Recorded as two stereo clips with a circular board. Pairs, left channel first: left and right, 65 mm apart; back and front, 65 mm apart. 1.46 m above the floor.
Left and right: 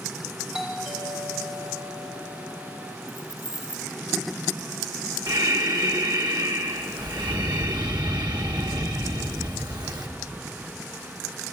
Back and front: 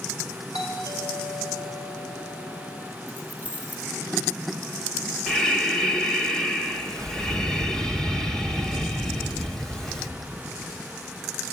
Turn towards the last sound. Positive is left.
turn(degrees=-100)